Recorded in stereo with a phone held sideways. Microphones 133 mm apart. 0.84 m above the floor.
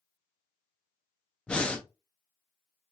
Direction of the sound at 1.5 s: 10° left (ahead or behind).